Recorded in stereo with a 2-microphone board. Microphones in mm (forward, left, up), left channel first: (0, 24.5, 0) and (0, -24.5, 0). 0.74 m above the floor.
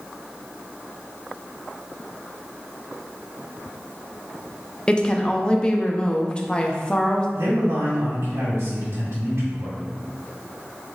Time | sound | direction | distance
4.9 | a woman speaking | 20° left (ahead or behind) | 0.5 m
7.4 | a man speaking | 70° right (ahead or behind) | 1.9 m